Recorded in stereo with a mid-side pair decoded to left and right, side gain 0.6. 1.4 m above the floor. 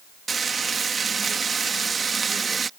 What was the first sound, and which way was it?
Frying, 30° right.